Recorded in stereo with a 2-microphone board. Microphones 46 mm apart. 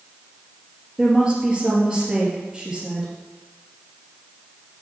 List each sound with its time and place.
1.0 s a woman speaking: 20° right (ahead or behind), 3.5 m